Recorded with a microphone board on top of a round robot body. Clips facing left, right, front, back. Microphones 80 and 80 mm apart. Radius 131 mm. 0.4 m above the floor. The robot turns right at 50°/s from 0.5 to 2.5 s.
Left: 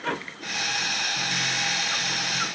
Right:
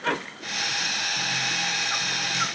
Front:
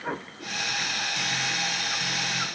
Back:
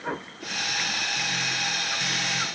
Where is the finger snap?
I don't hear a finger snap.